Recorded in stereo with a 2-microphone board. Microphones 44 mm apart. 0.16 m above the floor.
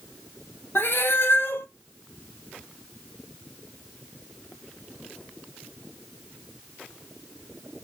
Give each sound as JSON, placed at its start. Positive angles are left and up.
{"t": 0.8, "sound": "a cat meowing", "side_deg": 65, "distance_m": 0.6}